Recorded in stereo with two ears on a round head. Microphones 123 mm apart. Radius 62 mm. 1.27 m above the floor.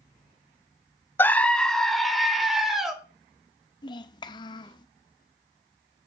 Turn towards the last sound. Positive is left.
turn(degrees=30)  # may be behind; listen again after turning